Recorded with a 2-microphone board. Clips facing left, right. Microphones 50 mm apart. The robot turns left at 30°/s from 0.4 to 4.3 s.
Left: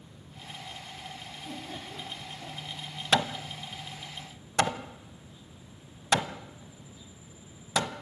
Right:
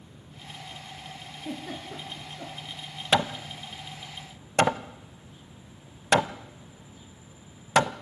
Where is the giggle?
75° right (ahead or behind), 4.5 m; by 2.6 s 65° right (ahead or behind), 4.5 m.